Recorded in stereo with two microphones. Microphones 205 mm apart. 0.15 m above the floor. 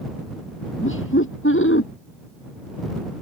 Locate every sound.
0.8 s laughter: 75° left (ahead or behind)